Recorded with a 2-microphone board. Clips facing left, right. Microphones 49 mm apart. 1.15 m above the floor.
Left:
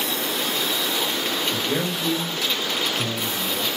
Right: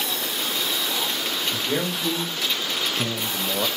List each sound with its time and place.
1.5 s a man speaking: 5° right (ahead or behind), 2.5 m; by 3.7 s 55° right (ahead or behind), 1.2 m